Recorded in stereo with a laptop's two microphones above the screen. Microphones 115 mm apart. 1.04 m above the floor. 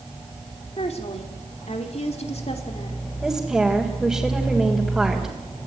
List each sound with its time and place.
0.8 s a woman speaking: 65° left (ahead or behind), 3 m
3.2 s a woman speaking: centre (ahead or behind), 3.5 m